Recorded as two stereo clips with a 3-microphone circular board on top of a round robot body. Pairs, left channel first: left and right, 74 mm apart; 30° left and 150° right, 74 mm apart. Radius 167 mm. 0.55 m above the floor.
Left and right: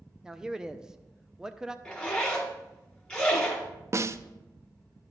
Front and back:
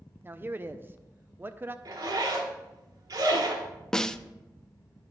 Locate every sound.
0.2 s a man speaking: 165° right, 0.6 m
1.9 s a zipper: 170° left, 1.3 m
3.9 s a snare drum: 50° right, 0.6 m